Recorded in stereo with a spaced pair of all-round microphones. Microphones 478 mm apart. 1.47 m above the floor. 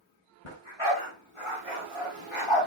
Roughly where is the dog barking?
Left.